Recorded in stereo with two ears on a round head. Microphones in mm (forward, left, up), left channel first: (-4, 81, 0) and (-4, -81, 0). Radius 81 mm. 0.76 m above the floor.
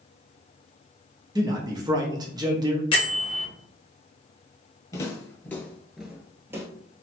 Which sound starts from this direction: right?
A man speaking, at 1.4 s.